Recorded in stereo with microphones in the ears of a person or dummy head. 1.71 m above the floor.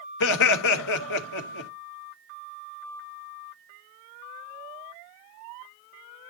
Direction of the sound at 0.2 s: 75° left (ahead or behind).